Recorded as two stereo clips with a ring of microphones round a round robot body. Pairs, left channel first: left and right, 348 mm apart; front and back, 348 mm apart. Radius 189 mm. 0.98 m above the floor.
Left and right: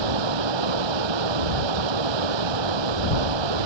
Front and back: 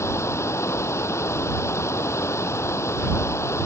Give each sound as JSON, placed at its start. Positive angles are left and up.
{"t": 0.0, "sound": "running water", "azimuth_deg": -80}